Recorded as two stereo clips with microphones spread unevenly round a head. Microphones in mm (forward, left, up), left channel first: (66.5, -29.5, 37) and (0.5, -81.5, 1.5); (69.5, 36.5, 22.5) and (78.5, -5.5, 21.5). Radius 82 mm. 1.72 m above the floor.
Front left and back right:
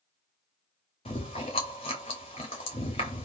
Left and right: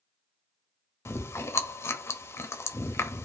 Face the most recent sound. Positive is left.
turn(degrees=85)